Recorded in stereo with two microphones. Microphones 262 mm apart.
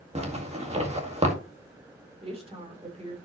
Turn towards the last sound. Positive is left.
turn(degrees=-25)  # may be behind; listen again after turning